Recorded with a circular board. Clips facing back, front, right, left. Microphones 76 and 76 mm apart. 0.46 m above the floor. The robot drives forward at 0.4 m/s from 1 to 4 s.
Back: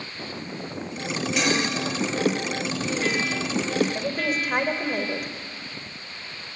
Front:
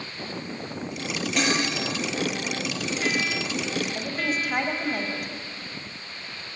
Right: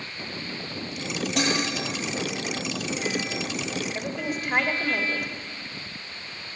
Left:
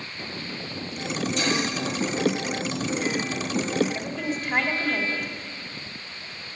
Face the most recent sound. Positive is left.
turn(degrees=-165)